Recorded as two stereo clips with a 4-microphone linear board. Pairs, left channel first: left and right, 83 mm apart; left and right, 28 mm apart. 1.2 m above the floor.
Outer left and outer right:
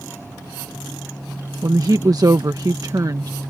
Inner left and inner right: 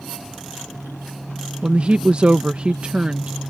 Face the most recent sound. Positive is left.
turn(degrees=-50)  # may be behind; listen again after turning